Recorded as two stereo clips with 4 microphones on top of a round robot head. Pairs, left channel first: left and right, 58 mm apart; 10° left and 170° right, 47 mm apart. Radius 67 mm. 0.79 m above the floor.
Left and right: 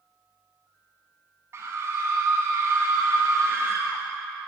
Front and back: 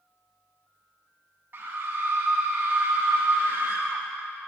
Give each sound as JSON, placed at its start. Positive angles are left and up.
{"t": 1.5, "sound": "a scream", "azimuth_deg": -125, "distance_m": 0.9}